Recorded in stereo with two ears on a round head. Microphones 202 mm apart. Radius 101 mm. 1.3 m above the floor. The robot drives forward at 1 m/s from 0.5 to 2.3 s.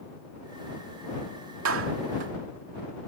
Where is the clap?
70° right (ahead or behind); by 2.3 s 55° right (ahead or behind).